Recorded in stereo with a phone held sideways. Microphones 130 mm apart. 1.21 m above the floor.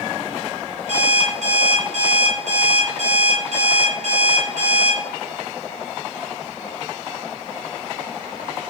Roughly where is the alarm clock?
Right.